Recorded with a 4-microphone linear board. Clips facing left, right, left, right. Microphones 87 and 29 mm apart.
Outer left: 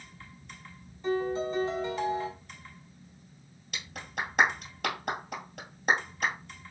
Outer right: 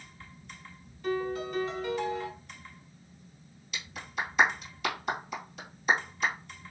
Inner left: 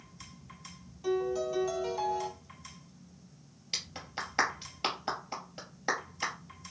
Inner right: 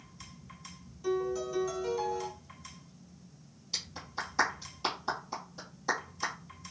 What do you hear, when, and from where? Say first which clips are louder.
1.0 s a piano: outer left 2 dB, inner left 1 dB; 20° left (ahead or behind), 1.1 m
3.7 s a clap: outer right 1 dB, even; 55° left (ahead or behind), 1.9 m